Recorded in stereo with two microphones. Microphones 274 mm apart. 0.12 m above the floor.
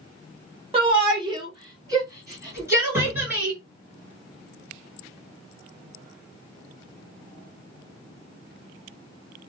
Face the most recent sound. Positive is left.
turn(degrees=-40)  # may be behind; listen again after turning